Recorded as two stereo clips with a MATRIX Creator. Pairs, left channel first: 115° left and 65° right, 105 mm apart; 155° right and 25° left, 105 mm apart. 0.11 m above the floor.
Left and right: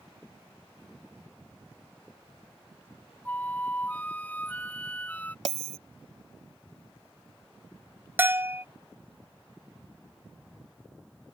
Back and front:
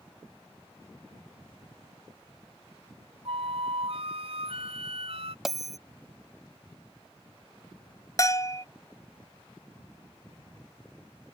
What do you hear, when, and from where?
3.2 s a flute: 40° left
5.5 s a bell: 65° right
8.2 s a bell: 125° right